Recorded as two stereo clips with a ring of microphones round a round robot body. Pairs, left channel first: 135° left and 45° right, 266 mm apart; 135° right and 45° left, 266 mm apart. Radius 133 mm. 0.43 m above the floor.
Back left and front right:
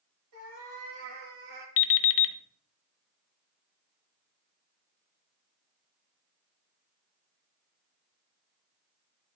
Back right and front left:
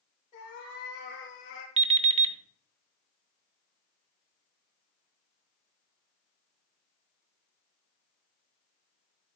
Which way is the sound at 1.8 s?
110° left.